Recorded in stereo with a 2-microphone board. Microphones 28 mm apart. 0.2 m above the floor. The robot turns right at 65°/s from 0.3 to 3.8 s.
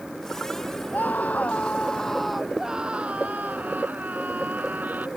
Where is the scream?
90° left; by 5.1 s 85° right.